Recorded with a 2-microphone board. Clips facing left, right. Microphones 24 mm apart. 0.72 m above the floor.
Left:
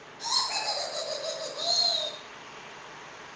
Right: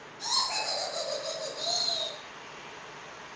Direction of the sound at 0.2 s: 10° left (ahead or behind).